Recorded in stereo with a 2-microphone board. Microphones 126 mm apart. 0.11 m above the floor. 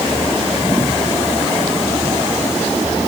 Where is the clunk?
No clunk in this recording.